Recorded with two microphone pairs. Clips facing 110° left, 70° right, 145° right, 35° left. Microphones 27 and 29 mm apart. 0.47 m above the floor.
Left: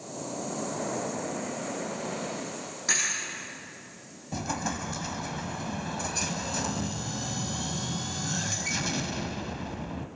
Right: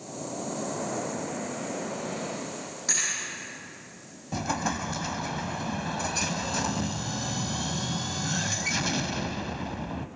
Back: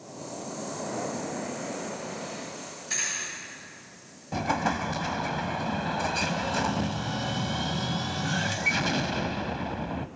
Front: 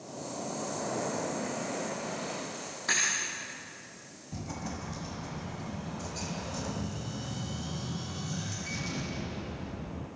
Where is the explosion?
145° right, 1.0 m.